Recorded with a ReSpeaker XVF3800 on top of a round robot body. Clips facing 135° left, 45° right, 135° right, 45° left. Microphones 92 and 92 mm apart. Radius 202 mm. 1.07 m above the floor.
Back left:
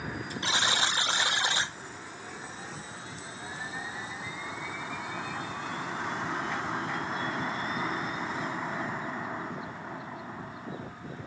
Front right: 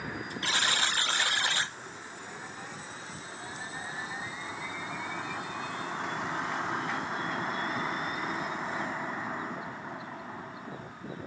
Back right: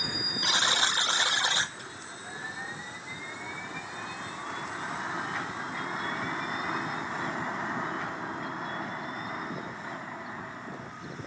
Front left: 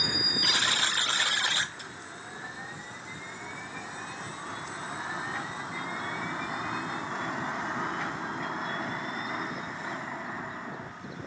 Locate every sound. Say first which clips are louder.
0.4 s a buzzer: back left 2 dB, back right 3 dB; straight behind, 0.6 m